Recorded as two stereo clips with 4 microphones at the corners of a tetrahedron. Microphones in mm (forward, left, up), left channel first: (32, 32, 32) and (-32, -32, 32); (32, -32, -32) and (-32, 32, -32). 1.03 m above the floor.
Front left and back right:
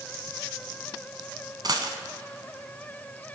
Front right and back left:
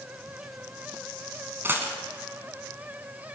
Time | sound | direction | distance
1.6 | a dropped coin | 165° right | 1.5 m